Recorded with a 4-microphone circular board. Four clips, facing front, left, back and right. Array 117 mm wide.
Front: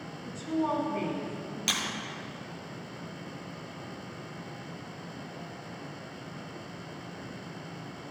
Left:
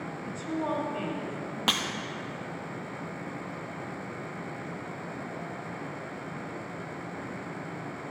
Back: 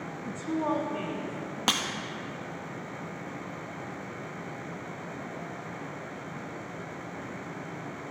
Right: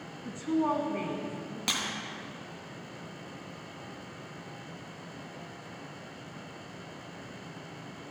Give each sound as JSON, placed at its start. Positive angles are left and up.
{"t": 0.2, "sound": "a woman speaking", "azimuth_deg": -150, "distance_m": 1.2}
{"t": 1.7, "sound": "breaking glass", "azimuth_deg": 150, "distance_m": 1.0}